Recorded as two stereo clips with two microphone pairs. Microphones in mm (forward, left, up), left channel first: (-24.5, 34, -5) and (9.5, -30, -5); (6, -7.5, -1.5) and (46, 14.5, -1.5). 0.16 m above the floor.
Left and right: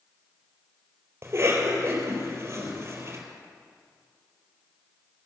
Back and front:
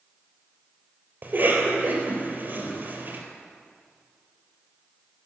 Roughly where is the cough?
Ahead.